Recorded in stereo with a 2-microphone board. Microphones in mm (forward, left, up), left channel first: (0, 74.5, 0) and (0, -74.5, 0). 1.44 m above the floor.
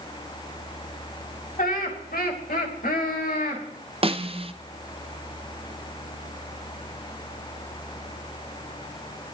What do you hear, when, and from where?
1.6 s laughter: 70° left (ahead or behind), 2.5 m; by 3.6 s 75° left (ahead or behind), 3 m
4.0 s a snare drum: 40° right (ahead or behind), 0.6 m